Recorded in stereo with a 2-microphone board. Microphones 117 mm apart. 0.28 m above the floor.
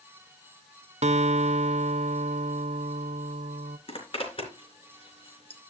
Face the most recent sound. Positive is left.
turn(degrees=55)  # may be behind; listen again after turning